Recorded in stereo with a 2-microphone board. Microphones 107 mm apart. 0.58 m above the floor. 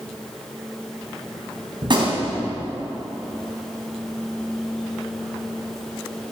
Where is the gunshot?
50° right (ahead or behind), 3 m.